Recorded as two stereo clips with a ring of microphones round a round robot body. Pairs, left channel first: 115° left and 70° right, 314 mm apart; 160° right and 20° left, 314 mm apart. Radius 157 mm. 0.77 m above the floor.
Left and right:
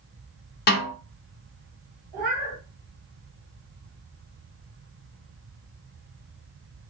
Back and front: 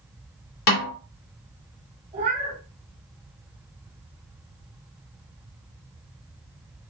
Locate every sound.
0.7 s a snare drum: 170° left, 1.6 m
2.1 s a cat meowing: 50° right, 1.7 m